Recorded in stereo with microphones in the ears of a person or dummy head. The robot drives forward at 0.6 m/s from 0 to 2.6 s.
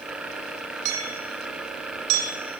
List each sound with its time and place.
0.8 s hammering: 80° right, 6 m; by 2.3 s 85° right, 6 m